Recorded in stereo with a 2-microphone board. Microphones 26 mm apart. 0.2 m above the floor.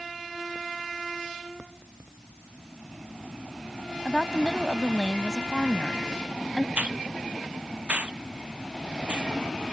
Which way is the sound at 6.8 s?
60° right (ahead or behind).